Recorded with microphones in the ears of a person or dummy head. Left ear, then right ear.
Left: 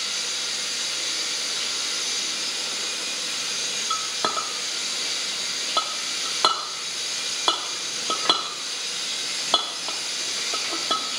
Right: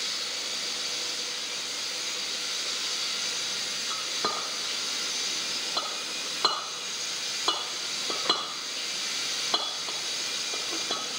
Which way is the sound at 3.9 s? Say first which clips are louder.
Left 5 dB; 20° left (ahead or behind).